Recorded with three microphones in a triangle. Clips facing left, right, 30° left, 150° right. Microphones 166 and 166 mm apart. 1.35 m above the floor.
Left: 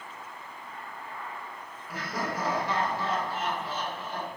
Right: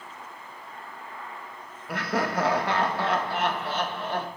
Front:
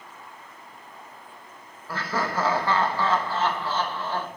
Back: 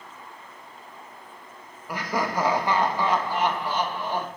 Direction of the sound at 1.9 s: 75° right.